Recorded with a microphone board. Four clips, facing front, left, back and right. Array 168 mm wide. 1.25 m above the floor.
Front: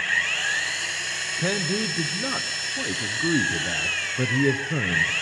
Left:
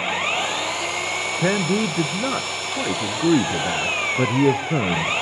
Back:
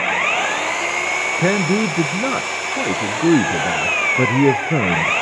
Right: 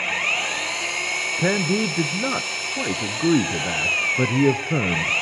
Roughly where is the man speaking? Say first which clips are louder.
Left 1 dB, back 9 dB; behind.